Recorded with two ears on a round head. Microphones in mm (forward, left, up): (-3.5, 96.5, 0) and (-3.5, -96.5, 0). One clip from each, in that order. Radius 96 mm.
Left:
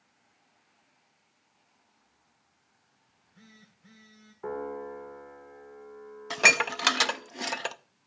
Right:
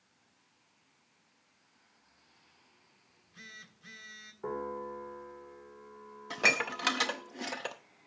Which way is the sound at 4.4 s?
30° left (ahead or behind).